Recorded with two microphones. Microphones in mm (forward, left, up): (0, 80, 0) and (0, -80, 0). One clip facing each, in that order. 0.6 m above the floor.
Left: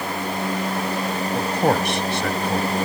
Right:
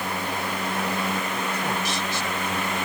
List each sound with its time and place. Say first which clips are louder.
1.3 s a man speaking: left 8 dB; 55° left (ahead or behind); by 2.7 s 75° left (ahead or behind)